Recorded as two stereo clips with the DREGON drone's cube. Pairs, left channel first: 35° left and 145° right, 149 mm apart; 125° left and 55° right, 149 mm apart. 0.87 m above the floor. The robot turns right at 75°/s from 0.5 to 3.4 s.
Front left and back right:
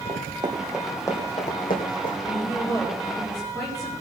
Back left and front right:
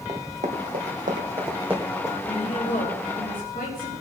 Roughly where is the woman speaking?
Ahead left.